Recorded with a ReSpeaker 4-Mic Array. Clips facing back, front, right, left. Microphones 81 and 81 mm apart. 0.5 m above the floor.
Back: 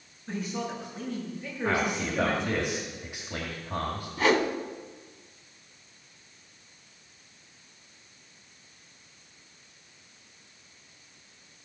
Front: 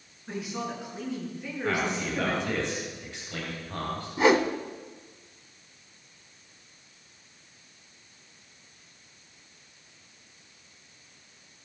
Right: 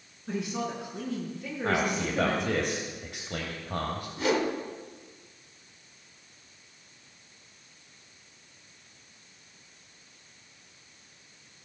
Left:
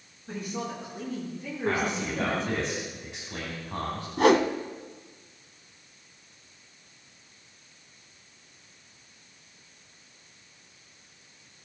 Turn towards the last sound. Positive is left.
turn(degrees=70)